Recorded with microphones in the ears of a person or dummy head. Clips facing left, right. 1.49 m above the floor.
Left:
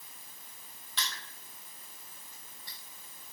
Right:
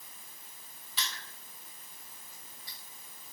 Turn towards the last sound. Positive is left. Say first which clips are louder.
# left 1 dB
turn(degrees=-5)  # may be behind; listen again after turning